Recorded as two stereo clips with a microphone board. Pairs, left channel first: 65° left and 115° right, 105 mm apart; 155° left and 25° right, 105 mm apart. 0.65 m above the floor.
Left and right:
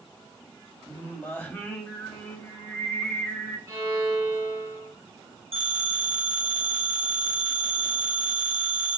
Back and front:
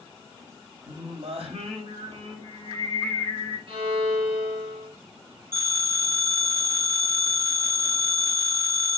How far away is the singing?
About 0.8 m.